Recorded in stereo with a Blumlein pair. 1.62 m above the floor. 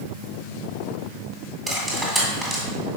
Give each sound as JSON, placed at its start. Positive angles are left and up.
{"t": 1.7, "sound": "cutlery clinking", "azimuth_deg": -20, "distance_m": 3.0}